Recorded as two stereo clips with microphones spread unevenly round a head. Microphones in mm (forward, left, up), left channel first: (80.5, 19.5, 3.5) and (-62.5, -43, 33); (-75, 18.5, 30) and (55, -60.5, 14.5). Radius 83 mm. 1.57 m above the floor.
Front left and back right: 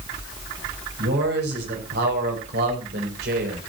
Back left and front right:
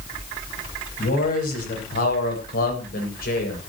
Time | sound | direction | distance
1.0 | a man speaking | straight behind | 10 m